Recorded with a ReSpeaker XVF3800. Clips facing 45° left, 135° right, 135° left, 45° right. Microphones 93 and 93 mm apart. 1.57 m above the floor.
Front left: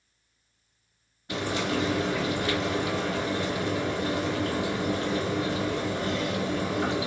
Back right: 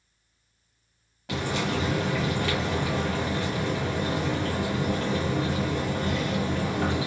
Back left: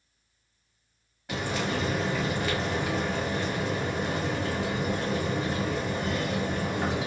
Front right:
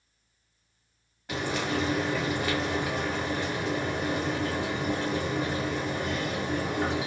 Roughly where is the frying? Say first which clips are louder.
Even, even; behind right.